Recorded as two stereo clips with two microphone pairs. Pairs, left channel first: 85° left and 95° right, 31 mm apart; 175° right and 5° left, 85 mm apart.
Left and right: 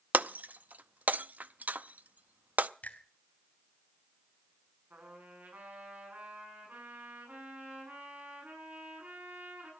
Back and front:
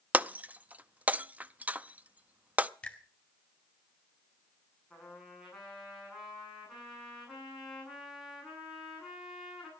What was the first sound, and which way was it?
Breaking glass, 70° right.